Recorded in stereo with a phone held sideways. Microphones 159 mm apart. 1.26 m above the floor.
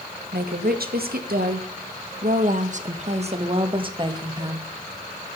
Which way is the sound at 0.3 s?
80° right.